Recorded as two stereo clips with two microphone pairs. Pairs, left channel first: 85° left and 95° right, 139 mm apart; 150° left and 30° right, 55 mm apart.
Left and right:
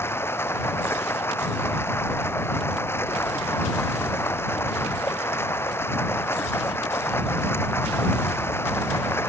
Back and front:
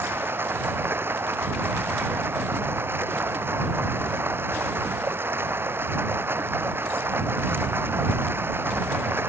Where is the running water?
15° left.